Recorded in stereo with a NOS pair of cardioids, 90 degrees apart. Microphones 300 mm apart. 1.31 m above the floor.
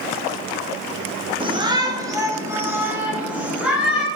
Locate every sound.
1.4 s a shout: 15° right, 1.4 m; by 4.1 s 5° right, 3 m